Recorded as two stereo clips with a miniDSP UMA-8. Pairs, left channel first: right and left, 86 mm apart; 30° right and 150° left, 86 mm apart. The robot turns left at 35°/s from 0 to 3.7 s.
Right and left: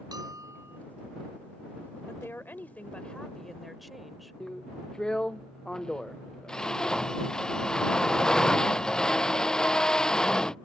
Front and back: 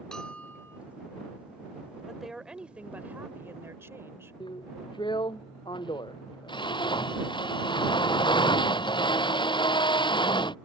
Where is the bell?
50° left; by 0.8 s 30° left.